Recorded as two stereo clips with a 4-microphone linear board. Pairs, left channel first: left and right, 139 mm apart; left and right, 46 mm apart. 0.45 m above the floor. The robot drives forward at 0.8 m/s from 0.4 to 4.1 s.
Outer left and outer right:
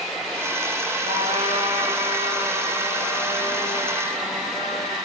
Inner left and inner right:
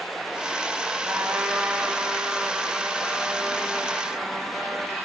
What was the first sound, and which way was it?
A trumpet, 50° right (ahead or behind).